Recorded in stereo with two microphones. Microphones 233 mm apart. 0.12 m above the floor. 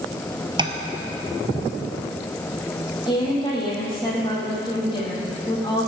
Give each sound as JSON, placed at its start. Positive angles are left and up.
{"t": 0.6, "sound": "tapping", "side_deg": -20, "distance_m": 1.1}
{"t": 3.1, "sound": "a woman speaking", "side_deg": 20, "distance_m": 5.0}